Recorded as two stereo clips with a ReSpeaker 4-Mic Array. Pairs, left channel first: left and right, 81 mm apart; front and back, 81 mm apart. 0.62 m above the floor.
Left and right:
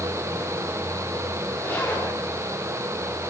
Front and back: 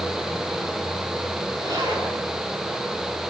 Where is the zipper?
150° left, 8 m.